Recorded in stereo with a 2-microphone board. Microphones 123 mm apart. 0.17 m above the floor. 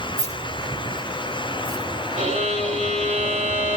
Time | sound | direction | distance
0.2 | keys jangling | 75° right (ahead or behind) | 8.5 m
2.1 | a violin | 70° right (ahead or behind) | 9.5 m